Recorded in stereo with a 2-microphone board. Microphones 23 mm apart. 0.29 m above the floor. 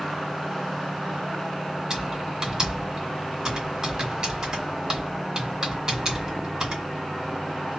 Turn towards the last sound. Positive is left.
turn(degrees=-30)  # may be behind; listen again after turning